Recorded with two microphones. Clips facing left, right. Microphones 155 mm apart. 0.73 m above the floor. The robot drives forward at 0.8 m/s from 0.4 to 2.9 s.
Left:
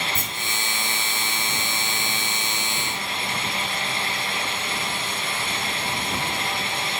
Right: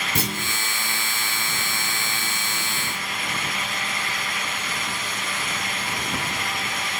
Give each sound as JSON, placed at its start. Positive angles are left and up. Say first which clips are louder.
{"t": 0.1, "sound": "a clunk", "louder": "right 4 dB", "side_deg": -80, "distance_m": 1.0}